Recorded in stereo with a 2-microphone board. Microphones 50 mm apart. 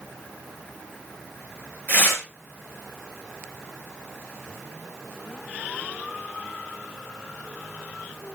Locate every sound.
1.9 s tearing paper: 40° left (ahead or behind), 5 m